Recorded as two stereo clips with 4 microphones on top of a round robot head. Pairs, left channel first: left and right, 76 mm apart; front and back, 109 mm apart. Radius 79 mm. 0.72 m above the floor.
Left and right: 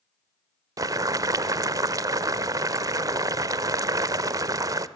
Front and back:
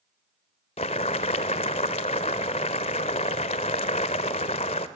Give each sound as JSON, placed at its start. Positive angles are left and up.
{"t": 0.8, "sound": "boiling", "azimuth_deg": -50, "distance_m": 0.8}